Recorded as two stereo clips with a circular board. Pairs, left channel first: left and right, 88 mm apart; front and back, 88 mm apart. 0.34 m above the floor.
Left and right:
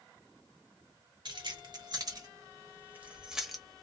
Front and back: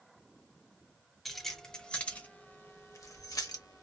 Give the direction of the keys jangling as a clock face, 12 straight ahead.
3 o'clock.